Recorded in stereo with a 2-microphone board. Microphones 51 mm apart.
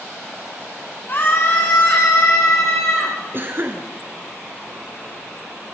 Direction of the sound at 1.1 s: 40° left (ahead or behind).